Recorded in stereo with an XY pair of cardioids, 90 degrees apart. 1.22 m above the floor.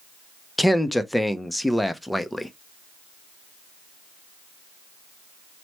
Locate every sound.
0.6 s a man speaking: 5° left, 0.5 m